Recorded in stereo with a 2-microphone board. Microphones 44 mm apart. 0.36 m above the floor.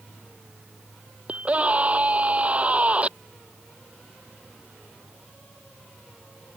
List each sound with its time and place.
1.3 s a scream: 30° right (ahead or behind)